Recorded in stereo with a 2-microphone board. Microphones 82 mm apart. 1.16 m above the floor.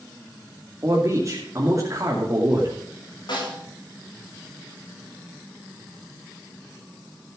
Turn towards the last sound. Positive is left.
turn(degrees=65)  # may be behind; listen again after turning